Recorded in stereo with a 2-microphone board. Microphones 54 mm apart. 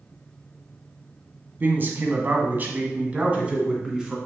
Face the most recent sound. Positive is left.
turn(degrees=-15)  # may be behind; listen again after turning